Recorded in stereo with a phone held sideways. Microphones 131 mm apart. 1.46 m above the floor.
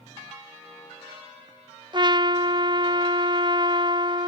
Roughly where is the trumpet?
Right.